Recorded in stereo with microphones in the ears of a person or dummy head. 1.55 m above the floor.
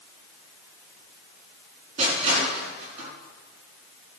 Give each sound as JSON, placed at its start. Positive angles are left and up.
{"t": 2.0, "sound": "crushing", "side_deg": -35, "distance_m": 5.5}